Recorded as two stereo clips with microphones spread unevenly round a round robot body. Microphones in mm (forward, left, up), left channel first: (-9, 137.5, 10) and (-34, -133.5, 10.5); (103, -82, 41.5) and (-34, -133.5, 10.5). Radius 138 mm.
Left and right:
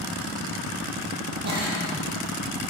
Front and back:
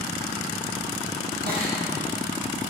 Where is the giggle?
150° right, 6.5 m.